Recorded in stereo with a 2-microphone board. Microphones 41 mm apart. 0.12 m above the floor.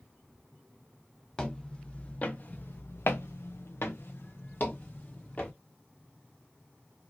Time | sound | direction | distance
1.4 | footsteps | 15° left (ahead or behind) | 1.3 m